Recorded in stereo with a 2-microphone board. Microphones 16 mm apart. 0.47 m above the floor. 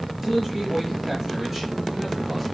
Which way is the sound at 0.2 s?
10° right (ahead or behind).